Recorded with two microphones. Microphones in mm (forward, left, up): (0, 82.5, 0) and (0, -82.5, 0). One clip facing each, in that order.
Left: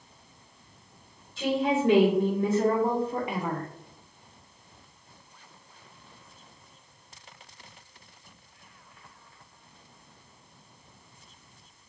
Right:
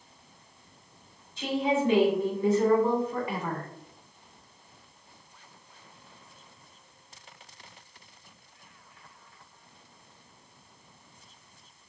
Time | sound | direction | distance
1.4 | a woman speaking | 65° left (ahead or behind) | 2 m